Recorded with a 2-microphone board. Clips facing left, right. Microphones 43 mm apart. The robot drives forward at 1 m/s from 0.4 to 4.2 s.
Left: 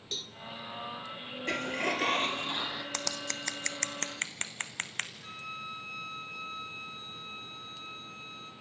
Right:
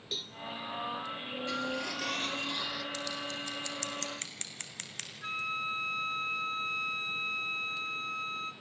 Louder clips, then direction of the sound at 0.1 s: Even; 10° right (ahead or behind).